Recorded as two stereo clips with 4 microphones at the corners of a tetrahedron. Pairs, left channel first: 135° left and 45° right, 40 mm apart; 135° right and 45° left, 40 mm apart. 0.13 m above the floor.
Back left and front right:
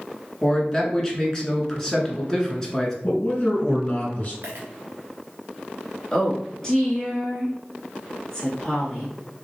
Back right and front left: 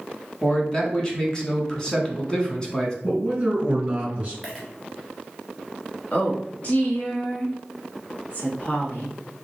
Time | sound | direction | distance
0.4 | a man speaking | 170° right | 1.2 m
3.0 | a man speaking | 95° left | 2 m
4.4 | a dropped coin | 55° right | 1.8 m
6.1 | a woman speaking | 150° right | 1.3 m